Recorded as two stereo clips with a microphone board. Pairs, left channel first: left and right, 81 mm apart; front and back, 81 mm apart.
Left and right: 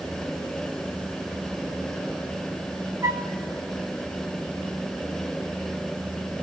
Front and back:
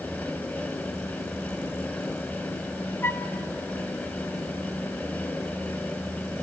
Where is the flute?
55° right, 1.1 m.